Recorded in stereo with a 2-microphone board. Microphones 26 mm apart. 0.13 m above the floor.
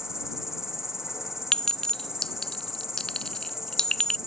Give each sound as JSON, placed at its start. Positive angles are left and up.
{"t": 0.0, "sound": "an insect", "side_deg": -15}
{"t": 1.5, "sound": "a clink", "side_deg": 25}